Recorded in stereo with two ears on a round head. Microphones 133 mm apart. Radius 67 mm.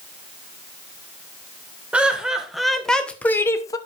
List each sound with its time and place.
1.9 s laughter: 10° right (ahead or behind), 1.5 m; by 3.8 s 25° left (ahead or behind), 0.8 m